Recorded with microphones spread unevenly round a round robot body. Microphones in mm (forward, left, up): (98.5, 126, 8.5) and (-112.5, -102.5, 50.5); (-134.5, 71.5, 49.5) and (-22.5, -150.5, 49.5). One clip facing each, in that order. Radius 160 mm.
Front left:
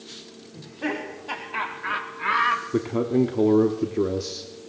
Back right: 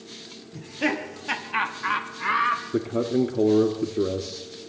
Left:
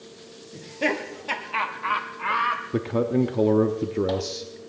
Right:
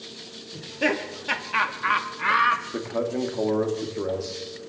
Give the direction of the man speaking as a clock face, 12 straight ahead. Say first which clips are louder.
Front left 1 dB, left 5 dB; 8 o'clock.